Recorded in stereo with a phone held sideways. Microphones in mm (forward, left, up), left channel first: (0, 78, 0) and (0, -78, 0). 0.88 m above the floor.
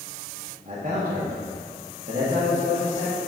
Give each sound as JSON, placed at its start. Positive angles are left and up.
{"t": 0.7, "sound": "a man speaking", "side_deg": -50, "distance_m": 1.5}